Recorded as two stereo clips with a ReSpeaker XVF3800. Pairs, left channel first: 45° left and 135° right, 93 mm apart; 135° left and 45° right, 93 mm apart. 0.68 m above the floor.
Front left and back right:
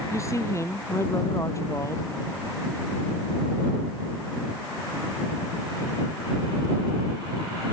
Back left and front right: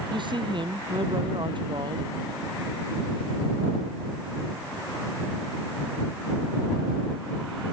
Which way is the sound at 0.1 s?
15° right.